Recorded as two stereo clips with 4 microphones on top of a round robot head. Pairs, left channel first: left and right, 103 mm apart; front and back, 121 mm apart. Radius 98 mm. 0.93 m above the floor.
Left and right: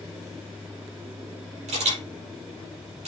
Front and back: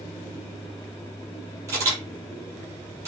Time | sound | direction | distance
1.7 | a camera shutter | 110° right | 6.5 m